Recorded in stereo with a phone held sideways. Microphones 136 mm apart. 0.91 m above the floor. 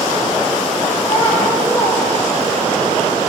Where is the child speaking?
45° left (ahead or behind), 1.3 m; by 2.7 s 25° right (ahead or behind), 1.2 m.